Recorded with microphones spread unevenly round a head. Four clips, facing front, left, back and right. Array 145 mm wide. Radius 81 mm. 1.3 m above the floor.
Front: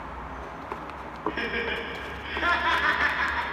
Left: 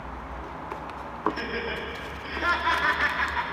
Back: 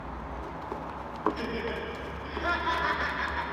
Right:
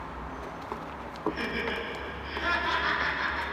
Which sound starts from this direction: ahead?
Laughter, at 1.3 s.